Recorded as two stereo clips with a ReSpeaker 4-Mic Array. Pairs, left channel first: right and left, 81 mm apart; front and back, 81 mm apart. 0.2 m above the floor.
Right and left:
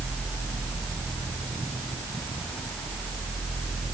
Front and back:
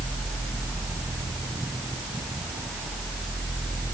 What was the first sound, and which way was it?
Only background noise.